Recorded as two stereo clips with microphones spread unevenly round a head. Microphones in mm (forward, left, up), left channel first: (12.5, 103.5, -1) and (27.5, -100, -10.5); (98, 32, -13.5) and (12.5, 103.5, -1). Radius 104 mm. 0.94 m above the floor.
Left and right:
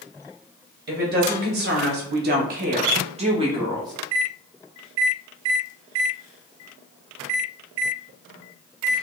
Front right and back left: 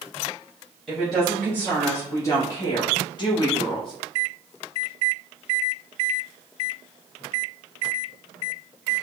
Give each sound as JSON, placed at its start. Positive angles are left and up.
{"t": 0.9, "sound": "a woman speaking", "azimuth_deg": -125, "distance_m": 1.3}